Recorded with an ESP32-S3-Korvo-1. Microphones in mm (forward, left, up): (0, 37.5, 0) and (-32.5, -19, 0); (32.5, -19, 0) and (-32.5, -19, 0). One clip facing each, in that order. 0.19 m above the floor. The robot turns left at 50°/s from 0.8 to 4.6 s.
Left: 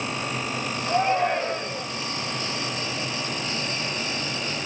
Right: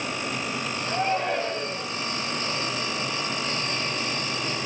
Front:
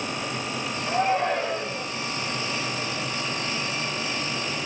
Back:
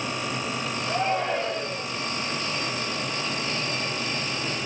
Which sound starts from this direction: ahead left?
A shout, at 0.9 s.